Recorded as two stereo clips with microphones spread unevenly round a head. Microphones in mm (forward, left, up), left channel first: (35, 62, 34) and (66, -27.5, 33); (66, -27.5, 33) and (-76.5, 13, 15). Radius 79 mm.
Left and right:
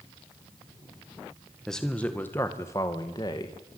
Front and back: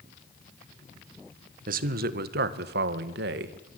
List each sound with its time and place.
1.7 s a man speaking: 165° right, 1.8 m; by 3.7 s 165° left, 2.5 m